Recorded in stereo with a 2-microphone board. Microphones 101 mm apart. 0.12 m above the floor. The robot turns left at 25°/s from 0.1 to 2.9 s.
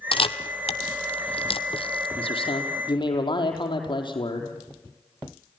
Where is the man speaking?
65° left (ahead or behind), 4 m; by 4.5 s 50° left (ahead or behind), 4 m.